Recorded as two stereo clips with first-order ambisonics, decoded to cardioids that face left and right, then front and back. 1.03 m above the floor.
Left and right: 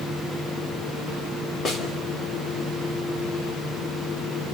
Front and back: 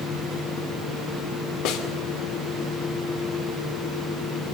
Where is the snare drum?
25° left, 3 m.